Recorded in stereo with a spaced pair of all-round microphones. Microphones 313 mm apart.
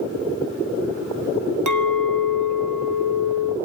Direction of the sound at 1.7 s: 75° right (ahead or behind).